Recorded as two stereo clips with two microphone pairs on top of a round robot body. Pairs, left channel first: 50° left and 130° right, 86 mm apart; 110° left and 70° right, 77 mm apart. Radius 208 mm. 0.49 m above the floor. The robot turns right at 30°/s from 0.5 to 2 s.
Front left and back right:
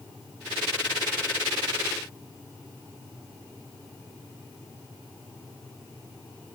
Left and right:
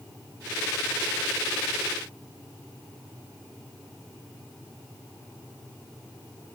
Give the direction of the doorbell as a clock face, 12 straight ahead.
I don't hear a doorbell.